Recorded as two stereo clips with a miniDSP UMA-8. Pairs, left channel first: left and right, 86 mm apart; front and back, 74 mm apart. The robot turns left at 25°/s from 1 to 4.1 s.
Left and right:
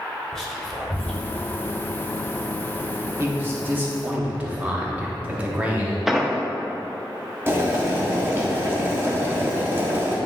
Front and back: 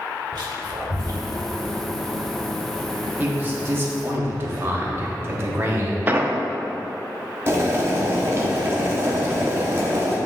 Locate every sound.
0.3 s whispering: 175° left, 1.6 m; by 1.6 s 160° left, 1.6 m
3.2 s a man speaking: 125° right, 1.2 m; by 6.0 s 150° right, 1.2 m
6.1 s an explosion: 175° right, 0.5 m
7.5 s boiling: 140° right, 1.2 m